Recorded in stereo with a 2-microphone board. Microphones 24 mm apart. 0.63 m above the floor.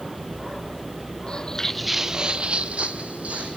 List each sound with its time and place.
1.3 s footsteps: 45° left (ahead or behind), 1.3 m; by 3.6 s 75° right (ahead or behind), 3 m